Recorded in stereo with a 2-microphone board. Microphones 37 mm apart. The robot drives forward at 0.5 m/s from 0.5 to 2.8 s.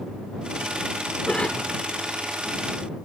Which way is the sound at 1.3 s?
30° left (ahead or behind).